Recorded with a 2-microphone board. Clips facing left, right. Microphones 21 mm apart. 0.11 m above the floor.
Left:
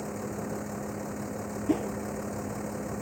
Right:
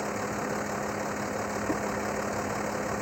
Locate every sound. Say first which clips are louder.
0.0 s a vehicle: right 4 dB; 40° right (ahead or behind)
1.7 s a whoosh: left 5 dB; 55° left (ahead or behind)